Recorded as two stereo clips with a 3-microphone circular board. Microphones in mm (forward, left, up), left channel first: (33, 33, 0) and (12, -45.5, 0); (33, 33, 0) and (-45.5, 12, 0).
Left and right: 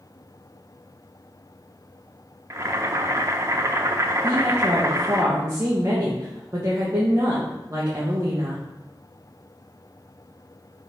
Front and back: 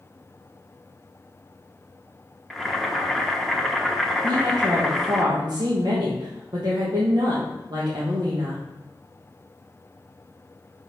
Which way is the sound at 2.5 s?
75° right.